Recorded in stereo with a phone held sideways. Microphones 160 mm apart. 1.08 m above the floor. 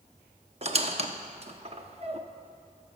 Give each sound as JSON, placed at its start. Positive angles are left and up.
{"t": 0.6, "sound": "a squeak", "side_deg": -40, "distance_m": 0.7}